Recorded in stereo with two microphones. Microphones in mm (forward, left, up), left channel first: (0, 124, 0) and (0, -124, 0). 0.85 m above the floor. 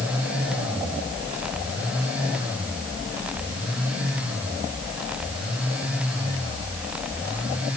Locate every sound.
Only background noise.